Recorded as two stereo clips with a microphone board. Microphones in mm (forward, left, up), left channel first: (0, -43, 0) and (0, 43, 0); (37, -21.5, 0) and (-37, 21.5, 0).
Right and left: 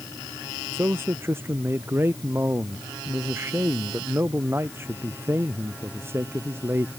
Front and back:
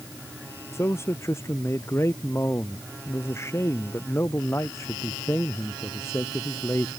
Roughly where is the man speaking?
Ahead left.